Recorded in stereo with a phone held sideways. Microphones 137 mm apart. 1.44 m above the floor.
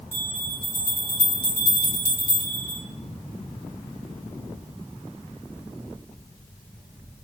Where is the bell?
70° left (ahead or behind), 1.3 m.